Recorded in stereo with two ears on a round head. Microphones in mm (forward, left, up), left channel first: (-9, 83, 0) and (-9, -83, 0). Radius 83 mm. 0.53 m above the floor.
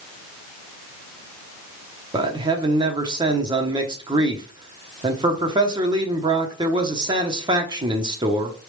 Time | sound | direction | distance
2.1 | a man speaking | 25° right (ahead or behind) | 0.8 m